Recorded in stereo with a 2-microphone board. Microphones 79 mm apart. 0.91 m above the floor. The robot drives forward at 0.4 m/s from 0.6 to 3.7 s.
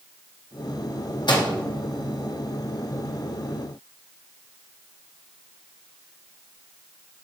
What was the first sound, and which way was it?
A microwave, 70° left (ahead or behind).